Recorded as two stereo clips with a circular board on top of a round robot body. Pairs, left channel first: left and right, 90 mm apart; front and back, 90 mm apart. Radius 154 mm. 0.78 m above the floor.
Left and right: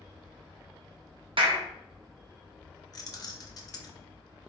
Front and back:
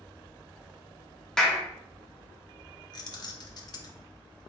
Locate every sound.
1.4 s a clap: 85° right, 0.7 m
2.9 s keys jangling: 40° left, 0.6 m